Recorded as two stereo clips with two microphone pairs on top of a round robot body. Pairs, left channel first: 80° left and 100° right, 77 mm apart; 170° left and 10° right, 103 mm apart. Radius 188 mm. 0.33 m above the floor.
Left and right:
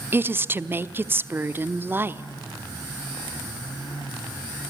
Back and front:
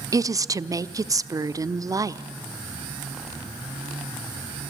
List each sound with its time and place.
0.1 s a woman speaking: 45° right, 1.2 m